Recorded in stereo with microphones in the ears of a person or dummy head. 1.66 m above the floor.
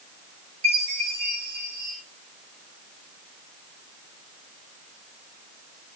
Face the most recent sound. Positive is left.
turn(degrees=-80)